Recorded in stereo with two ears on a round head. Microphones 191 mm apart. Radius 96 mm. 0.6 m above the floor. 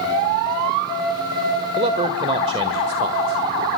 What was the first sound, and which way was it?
A man speaking, 30° right (ahead or behind).